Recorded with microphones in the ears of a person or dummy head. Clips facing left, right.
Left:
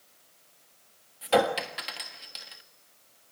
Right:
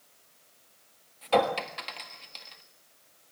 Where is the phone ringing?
I don't hear a phone ringing.